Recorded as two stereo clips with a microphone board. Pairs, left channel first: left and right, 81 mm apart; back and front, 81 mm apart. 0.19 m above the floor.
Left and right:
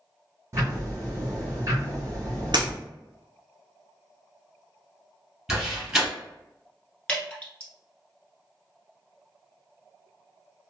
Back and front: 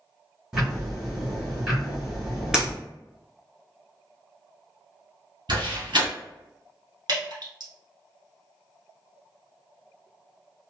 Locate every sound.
0.5 s ticking: 75° right, 1.9 m
2.5 s breaking glass: 80° right, 1.0 m
5.5 s a door slam: 10° right, 1.8 m
7.1 s dripping: 15° left, 1.1 m